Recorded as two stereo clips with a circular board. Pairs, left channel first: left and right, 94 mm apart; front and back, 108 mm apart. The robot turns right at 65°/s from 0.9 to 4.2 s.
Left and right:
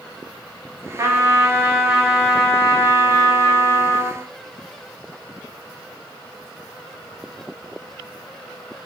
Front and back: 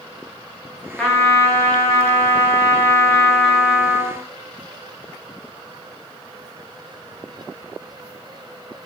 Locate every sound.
1.0 s a trumpet: 80° right, 0.8 m; by 4.2 s 130° left, 0.8 m